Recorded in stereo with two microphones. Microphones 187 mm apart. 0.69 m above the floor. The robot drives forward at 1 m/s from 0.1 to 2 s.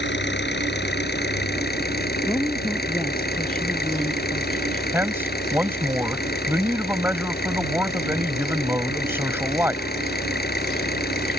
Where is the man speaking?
10° right (ahead or behind).